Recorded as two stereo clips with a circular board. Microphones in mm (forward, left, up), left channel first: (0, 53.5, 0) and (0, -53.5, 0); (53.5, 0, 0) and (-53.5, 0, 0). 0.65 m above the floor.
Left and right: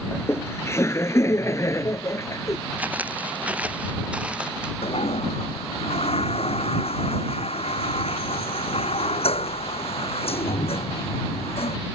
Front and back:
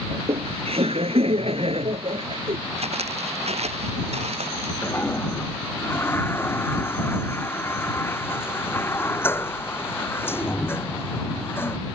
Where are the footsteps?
165° right; by 4.7 s 170° right.